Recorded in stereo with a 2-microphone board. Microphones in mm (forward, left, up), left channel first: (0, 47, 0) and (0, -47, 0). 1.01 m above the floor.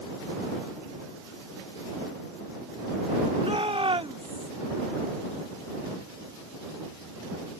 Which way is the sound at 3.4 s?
75° right (ahead or behind).